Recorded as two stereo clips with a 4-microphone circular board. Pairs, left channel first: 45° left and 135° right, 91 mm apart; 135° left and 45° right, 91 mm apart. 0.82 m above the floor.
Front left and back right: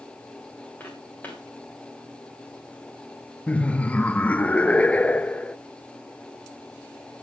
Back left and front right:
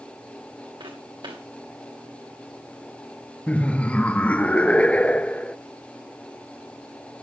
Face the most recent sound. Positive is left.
turn(degrees=90)